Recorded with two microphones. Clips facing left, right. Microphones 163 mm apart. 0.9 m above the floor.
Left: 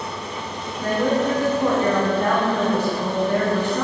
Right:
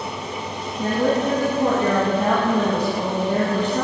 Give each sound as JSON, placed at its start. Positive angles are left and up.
{"t": 0.8, "sound": "a woman speaking", "side_deg": -30, "distance_m": 1.2}